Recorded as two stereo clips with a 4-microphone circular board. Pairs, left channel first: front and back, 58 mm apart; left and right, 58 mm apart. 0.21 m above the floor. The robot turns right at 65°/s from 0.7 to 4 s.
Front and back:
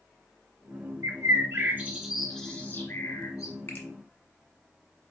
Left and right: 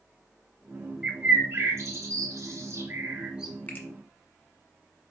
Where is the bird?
170° right, 1.3 m; by 3.5 s 5° right, 1.3 m.